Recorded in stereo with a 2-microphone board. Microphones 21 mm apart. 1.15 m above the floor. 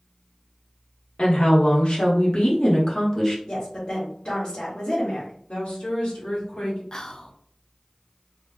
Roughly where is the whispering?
Left.